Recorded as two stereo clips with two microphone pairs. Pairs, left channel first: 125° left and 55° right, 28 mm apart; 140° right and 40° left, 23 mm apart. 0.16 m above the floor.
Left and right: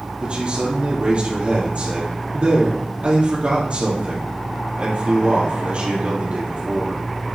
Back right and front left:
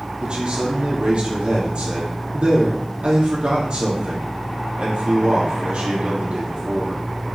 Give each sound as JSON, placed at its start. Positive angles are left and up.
{"t": 0.2, "sound": "a man speaking", "azimuth_deg": -5, "distance_m": 4.0}